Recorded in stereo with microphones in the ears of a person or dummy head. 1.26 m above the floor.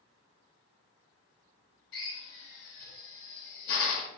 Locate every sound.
1.9 s a drill: 65° left (ahead or behind), 1.2 m